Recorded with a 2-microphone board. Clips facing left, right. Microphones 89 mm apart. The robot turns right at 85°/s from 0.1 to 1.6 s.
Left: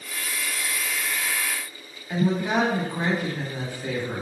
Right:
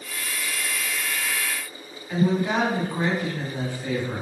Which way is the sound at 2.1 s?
15° left (ahead or behind).